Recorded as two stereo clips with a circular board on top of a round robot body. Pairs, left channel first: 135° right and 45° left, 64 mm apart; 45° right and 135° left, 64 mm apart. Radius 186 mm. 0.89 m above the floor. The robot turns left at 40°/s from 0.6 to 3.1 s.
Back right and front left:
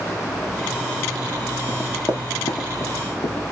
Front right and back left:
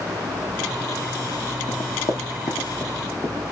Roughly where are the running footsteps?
Ahead right.